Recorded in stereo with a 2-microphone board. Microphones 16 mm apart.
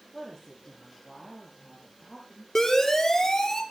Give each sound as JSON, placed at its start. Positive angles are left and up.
{"t": 0.1, "sound": "a woman speaking", "side_deg": 25, "distance_m": 8.5}
{"t": 2.5, "sound": "a siren", "side_deg": 25, "distance_m": 6.5}